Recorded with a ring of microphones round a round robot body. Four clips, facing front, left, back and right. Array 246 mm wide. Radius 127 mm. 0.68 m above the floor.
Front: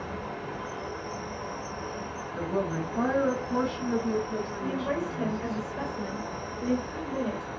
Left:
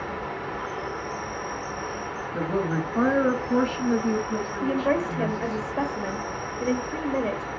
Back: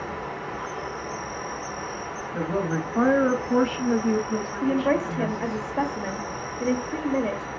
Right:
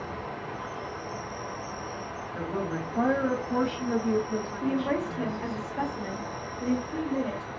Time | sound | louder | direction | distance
0.0 | an insect | left 4 dB, back 3 dB | 125° left | 0.8 m
2.3 | a woman speaking | left 6 dB, back 3 dB | 145° left | 1.5 m
4.6 | a woman speaking | left 4 dB, back 9 dB | 140° left | 1.0 m